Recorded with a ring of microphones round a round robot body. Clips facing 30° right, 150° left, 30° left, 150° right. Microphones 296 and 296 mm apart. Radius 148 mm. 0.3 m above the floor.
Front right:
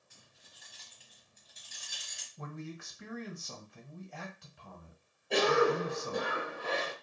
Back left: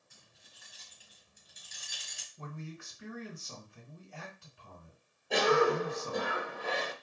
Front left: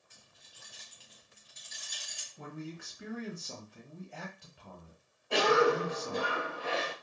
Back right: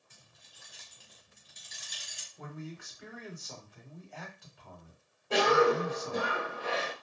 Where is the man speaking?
25° right, 1.4 m.